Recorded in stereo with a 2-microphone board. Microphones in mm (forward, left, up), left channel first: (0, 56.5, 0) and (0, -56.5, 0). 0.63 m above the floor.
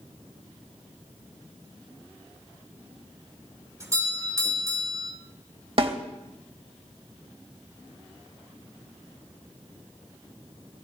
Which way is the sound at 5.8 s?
55° right (ahead or behind).